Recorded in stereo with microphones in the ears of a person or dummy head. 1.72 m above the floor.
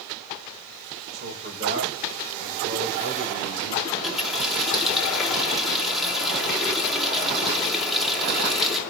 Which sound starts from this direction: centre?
A running tap, at 3.9 s.